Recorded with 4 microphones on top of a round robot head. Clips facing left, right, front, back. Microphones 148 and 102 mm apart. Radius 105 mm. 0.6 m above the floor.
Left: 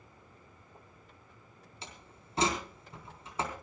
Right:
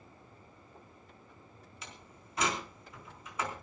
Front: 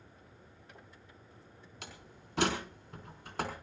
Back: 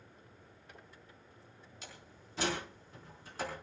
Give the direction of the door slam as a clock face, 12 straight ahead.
11 o'clock.